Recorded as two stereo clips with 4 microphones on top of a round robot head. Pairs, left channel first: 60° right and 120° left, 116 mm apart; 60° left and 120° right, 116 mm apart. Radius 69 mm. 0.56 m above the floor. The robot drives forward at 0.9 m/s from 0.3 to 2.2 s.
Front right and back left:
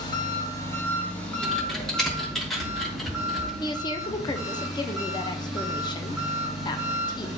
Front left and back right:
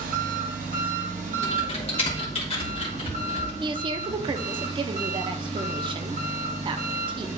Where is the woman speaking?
95° right, 0.9 m.